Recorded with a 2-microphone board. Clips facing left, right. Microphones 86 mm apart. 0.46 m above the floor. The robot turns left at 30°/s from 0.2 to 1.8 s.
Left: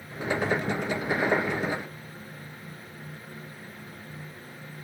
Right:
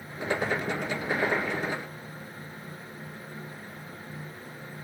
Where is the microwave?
I don't hear a microwave.